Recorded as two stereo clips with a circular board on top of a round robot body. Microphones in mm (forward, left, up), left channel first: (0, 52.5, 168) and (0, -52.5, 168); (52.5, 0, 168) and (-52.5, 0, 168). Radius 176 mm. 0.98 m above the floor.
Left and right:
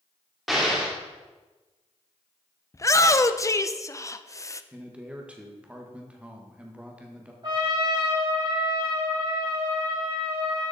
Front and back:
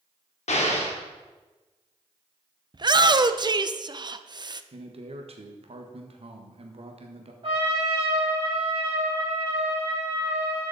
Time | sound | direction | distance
0.5 | an explosion | straight ahead | 2 m
2.7 | a shout | 145° left | 0.8 m
4.7 | a man speaking | 170° right | 1.5 m
7.4 | a trumpet | 140° right | 4 m